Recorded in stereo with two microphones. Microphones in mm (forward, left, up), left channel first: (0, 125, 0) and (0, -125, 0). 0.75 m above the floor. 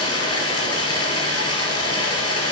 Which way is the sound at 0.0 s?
15° left (ahead or behind).